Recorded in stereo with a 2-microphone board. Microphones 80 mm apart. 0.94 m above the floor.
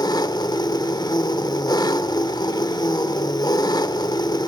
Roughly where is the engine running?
Left.